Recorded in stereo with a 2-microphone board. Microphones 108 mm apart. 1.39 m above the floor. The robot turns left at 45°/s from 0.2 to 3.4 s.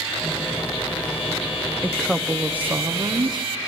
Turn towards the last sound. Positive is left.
turn(degrees=-55)